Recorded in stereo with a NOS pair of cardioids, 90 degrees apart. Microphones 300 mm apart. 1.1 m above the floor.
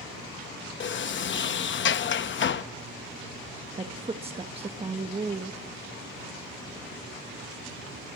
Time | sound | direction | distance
0.8 | a sliding door | 45° left | 0.8 m
3.8 | a woman speaking | 20° right | 1.4 m